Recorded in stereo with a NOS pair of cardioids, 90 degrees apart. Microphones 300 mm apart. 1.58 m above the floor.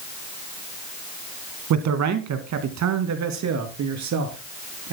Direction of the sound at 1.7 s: 65° right.